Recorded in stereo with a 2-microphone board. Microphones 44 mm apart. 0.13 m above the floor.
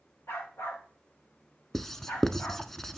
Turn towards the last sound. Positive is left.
turn(degrees=5)  # may be behind; listen again after turning